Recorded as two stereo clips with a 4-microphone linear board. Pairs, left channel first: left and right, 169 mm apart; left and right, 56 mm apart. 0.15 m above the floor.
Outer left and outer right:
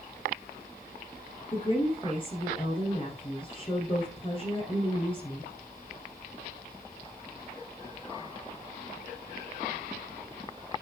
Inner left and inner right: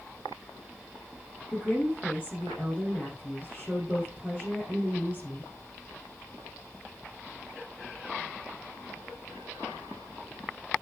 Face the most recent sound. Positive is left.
turn(degrees=30)  # may be behind; listen again after turning